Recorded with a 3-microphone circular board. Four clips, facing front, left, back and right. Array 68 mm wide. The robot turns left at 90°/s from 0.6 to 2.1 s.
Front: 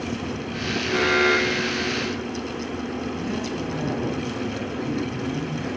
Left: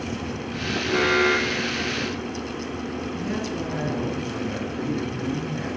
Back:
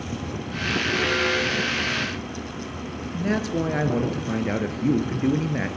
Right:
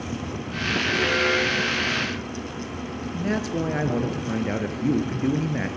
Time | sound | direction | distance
0.9 | an alarm | 65° left | 1.5 m
3.1 | a man speaking | 145° right | 3 m